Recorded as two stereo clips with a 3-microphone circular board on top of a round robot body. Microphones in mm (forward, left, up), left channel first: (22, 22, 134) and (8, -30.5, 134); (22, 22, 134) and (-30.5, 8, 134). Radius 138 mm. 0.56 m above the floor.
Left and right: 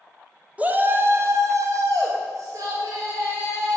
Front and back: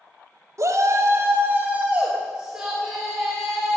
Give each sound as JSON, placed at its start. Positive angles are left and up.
{"t": 0.6, "sound": "a shout", "azimuth_deg": -165, "distance_m": 1.7}